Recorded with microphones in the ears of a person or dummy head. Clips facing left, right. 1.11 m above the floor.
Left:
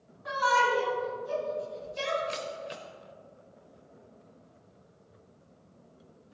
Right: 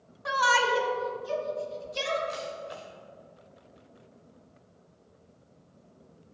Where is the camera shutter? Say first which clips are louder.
Even; 35° left (ahead or behind), 1.0 m.